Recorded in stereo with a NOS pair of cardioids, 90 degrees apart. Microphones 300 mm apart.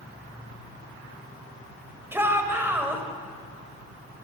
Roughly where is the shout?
Ahead.